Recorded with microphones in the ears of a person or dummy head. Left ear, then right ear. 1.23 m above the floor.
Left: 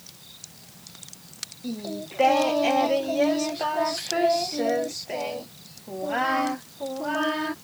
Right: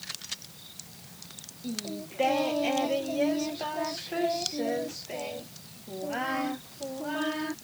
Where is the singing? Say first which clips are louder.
Left 2 dB; 30° left (ahead or behind).